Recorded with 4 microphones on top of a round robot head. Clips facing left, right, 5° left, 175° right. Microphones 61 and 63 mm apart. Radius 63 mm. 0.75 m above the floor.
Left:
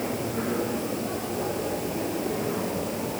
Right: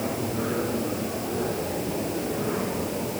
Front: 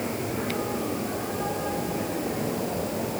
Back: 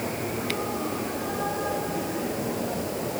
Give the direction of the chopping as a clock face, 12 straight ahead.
No chopping in this recording.